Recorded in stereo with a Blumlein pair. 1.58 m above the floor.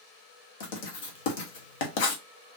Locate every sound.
0.6 s writing: 50° left, 1.2 m